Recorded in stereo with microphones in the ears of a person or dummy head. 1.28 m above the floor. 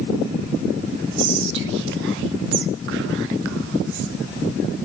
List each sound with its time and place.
1.2 s whispering: 70° right (ahead or behind), 0.7 m